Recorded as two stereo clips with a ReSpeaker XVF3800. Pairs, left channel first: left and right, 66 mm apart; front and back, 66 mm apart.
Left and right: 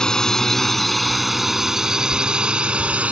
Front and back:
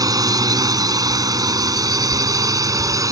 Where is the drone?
170° left; by 3.1 s 155° right.